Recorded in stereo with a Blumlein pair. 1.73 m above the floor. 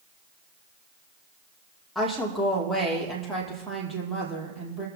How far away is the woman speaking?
About 5.5 m.